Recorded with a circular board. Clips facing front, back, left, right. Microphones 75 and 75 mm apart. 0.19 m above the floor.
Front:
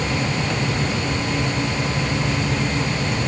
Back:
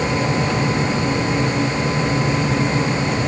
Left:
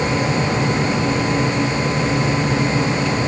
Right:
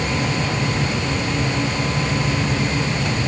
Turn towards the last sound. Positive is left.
No sound to turn to.